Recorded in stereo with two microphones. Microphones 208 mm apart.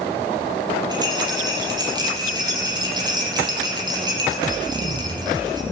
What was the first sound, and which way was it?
A rattle, 20° right (ahead or behind).